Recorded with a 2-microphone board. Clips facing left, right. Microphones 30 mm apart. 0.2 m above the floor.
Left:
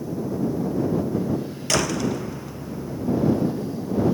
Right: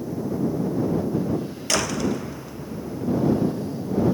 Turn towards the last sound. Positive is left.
turn(degrees=5)  # may be behind; listen again after turning